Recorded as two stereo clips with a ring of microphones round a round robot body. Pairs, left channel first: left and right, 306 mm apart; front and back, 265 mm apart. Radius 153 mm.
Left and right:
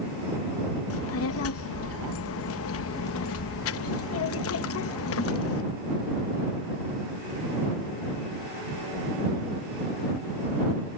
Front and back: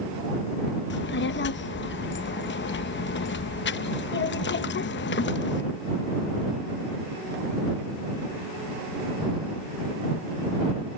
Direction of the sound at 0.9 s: 45° left.